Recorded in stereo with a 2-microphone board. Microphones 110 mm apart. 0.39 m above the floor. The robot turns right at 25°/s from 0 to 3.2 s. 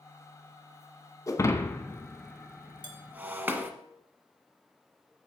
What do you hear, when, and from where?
1.3 s breaking glass: 30° left (ahead or behind), 0.8 m; by 3.7 s 15° right (ahead or behind), 0.8 m
2.8 s dishes clattering: 40° right (ahead or behind), 1.6 m; by 3.0 s 45° right (ahead or behind), 1.6 m